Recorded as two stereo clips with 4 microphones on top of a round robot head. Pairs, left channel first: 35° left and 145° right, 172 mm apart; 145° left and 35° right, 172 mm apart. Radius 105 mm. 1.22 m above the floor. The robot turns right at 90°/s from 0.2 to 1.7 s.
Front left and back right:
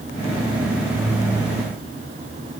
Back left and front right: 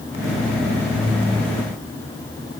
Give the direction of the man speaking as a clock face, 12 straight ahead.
No man speaking in this recording.